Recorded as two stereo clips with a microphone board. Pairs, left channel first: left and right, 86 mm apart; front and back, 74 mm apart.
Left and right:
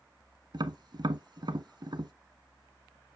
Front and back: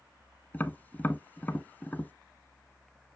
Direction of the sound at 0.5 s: 65° right.